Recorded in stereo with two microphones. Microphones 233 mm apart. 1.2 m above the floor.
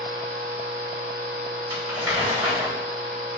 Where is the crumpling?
65° left (ahead or behind), 2.5 m.